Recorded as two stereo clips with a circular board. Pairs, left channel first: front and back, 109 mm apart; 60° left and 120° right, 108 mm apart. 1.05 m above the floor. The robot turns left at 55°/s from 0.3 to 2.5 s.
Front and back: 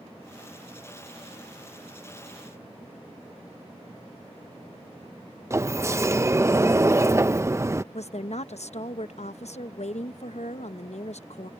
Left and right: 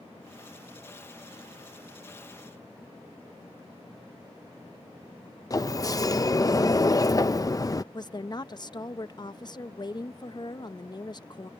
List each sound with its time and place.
5.5 s a sliding door: 115° left
7.9 s a woman speaking: 10° left